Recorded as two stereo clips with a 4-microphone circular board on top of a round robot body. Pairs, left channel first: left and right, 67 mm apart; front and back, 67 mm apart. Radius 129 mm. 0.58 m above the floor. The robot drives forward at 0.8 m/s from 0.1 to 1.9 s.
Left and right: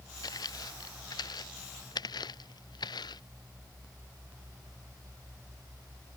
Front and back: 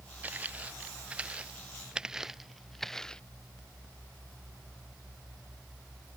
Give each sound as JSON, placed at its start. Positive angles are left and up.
{"t": 0.2, "sound": "footsteps", "azimuth_deg": 115}